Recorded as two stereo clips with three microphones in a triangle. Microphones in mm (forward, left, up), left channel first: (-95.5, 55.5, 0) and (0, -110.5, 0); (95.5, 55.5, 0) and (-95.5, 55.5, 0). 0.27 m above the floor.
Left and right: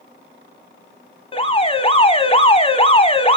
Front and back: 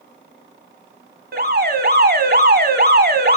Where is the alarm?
175° left, 1.2 m.